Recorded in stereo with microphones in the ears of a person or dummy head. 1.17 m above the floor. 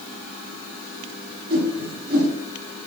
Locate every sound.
1.5 s a whoosh: 45° right (ahead or behind), 0.8 m